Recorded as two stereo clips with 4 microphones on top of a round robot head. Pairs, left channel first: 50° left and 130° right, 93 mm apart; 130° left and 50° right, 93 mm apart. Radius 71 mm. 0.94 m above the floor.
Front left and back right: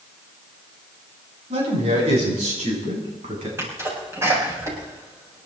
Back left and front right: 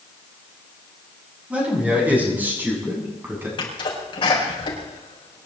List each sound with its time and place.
1.5 s a man speaking: 130° right, 7.5 m; by 3.5 s 120° right, 8 m
3.6 s a sneeze: 165° left, 7.5 m